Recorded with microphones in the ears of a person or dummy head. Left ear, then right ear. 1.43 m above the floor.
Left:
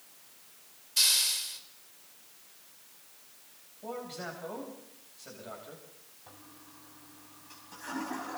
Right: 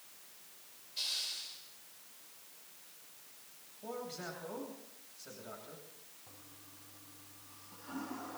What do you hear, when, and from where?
1.0 s a hiss: 55° left (ahead or behind), 2.5 m
3.8 s a man speaking: 20° left (ahead or behind), 8.5 m
6.3 s a toilet flushing: 65° left (ahead or behind), 5.5 m